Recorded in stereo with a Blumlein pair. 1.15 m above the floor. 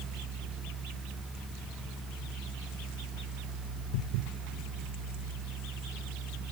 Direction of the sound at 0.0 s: 20° right.